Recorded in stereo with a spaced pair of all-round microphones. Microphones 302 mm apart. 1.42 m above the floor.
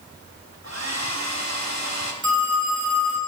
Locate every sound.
0.6 s a hair dryer: 60° right (ahead or behind), 1.7 m
2.2 s a phone ringing: 60° right (ahead or behind), 6 m